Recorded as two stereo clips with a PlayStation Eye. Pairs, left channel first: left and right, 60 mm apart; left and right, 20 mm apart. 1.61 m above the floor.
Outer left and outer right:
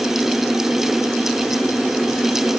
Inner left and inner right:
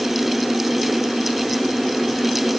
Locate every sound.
Only background noise.